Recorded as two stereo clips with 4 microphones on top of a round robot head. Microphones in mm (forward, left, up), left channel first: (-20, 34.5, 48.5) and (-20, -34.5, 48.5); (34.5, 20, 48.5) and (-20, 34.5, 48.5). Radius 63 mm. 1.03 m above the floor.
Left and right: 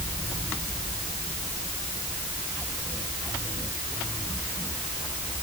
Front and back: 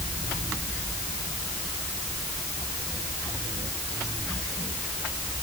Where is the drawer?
I don't hear a drawer.